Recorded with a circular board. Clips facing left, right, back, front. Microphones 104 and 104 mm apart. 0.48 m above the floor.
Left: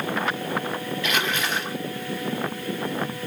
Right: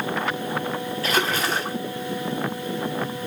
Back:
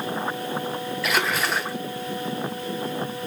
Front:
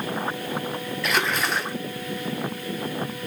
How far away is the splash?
About 1.1 m.